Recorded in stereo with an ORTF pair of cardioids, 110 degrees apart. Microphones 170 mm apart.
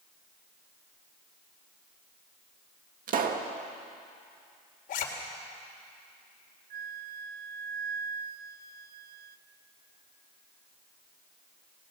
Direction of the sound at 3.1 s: 55° right.